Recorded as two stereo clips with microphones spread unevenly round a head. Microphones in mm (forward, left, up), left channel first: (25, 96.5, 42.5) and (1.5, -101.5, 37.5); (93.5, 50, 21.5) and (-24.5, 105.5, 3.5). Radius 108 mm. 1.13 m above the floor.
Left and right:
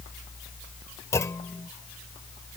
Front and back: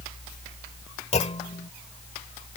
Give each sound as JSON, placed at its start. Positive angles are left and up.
{"t": 1.1, "sound": "a clunk", "azimuth_deg": 10}